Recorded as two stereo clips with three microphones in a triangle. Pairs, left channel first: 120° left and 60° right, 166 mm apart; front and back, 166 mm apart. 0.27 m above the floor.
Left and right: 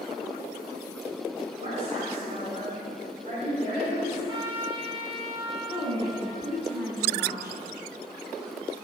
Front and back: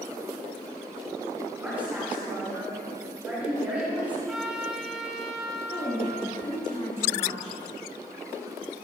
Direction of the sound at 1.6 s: 105° right.